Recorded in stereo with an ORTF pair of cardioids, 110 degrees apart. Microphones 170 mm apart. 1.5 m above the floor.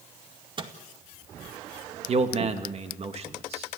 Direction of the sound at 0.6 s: 30° right.